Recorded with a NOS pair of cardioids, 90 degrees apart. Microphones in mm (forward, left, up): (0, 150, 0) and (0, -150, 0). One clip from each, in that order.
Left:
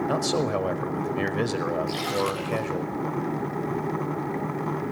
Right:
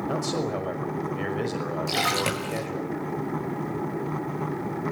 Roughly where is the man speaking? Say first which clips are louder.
Left 2 dB; ahead left.